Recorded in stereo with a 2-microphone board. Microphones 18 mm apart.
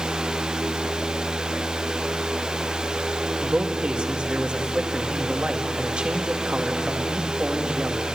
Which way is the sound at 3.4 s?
75° right (ahead or behind).